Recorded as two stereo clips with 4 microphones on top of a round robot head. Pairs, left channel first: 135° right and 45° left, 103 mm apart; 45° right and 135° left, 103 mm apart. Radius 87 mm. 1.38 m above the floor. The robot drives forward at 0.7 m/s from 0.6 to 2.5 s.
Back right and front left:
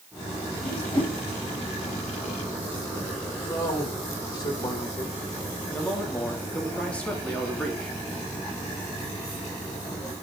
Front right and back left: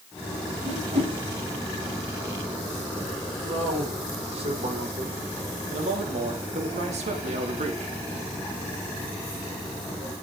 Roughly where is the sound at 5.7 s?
Behind left.